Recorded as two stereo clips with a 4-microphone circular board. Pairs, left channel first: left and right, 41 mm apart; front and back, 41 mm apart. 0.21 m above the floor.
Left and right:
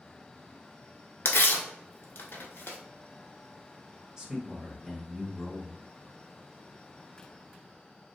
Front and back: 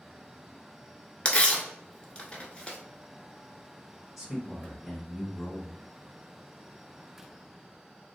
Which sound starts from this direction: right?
A man speaking, at 4.2 s.